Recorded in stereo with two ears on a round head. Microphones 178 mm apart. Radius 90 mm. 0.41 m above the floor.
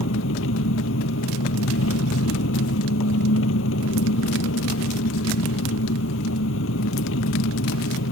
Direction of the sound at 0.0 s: 75° left (ahead or behind).